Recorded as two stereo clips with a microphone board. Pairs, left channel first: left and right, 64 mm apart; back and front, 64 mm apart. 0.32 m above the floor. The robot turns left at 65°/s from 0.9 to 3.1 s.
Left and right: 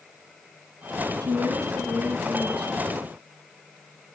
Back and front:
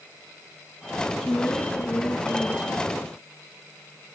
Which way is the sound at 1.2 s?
95° right.